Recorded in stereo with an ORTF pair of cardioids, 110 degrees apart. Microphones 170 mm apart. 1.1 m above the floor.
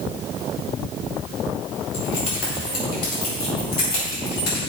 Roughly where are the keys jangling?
Ahead left.